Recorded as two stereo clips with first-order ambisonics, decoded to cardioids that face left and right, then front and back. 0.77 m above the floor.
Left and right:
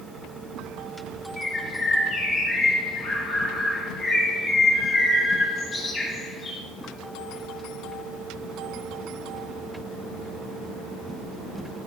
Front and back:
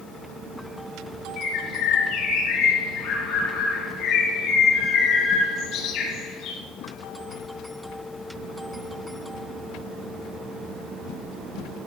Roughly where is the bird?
Ahead left.